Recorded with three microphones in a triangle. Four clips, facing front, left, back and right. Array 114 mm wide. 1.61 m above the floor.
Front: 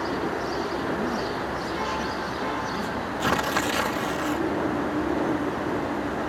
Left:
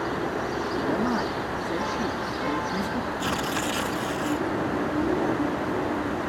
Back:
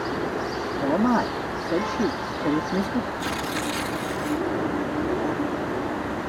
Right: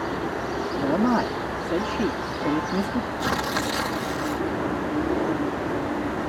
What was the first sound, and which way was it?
A man speaking, 140° right.